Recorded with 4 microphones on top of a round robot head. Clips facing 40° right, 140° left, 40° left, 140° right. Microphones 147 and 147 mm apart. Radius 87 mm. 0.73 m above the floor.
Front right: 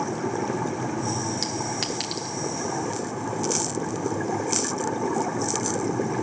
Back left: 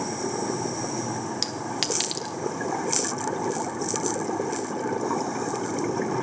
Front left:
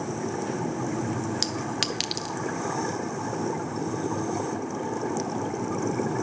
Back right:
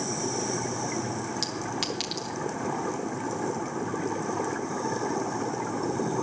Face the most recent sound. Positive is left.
turn(degrees=75)